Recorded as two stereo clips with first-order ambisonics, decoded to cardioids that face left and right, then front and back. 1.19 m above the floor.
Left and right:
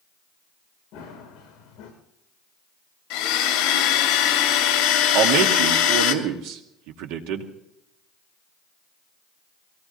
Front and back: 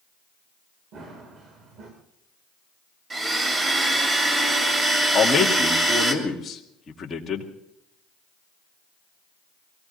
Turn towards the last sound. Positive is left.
turn(degrees=-75)